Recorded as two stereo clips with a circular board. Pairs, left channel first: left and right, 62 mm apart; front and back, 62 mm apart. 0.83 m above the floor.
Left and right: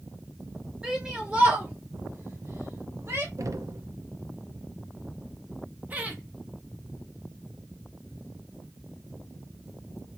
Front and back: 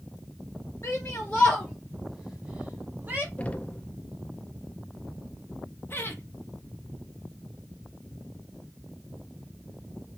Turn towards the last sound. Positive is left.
turn(degrees=-35)